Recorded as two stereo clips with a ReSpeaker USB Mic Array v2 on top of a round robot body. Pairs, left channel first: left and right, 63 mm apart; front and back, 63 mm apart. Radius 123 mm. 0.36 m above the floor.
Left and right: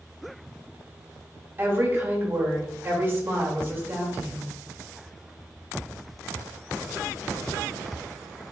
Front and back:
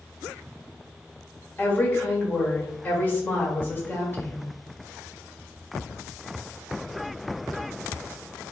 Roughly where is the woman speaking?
Ahead right.